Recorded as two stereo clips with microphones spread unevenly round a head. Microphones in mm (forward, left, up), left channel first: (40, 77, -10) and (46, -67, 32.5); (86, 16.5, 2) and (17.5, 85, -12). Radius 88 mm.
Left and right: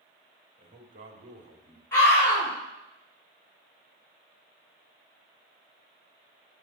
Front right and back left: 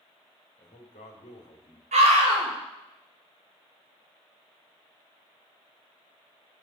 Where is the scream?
170° left, 5 m.